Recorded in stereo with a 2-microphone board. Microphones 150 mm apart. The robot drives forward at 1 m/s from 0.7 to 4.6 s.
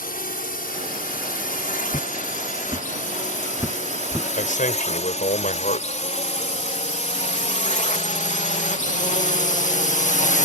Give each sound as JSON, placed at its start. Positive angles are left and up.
{"t": 0.0, "sound": "a drone", "side_deg": 75}
{"t": 1.9, "sound": "footsteps", "side_deg": -25}
{"t": 4.4, "sound": "a man speaking", "side_deg": 60}